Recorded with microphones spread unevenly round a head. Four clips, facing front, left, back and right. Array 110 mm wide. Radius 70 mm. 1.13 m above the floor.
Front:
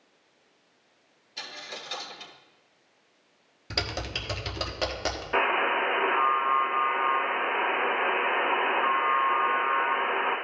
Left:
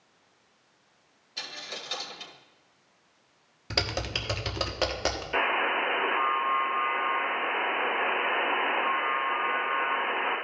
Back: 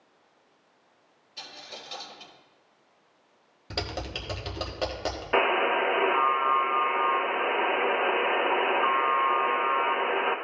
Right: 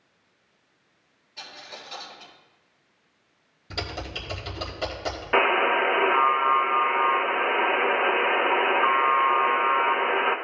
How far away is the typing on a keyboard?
About 1.2 m.